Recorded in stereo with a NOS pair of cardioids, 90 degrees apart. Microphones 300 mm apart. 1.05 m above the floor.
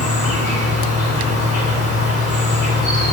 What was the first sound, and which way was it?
An insect, 55° left.